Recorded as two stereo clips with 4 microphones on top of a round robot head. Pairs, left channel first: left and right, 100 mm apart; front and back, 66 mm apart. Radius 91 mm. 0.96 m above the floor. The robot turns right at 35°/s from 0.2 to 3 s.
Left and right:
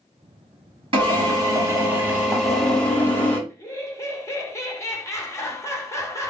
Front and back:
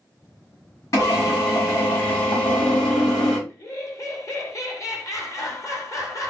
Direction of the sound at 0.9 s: 55° right.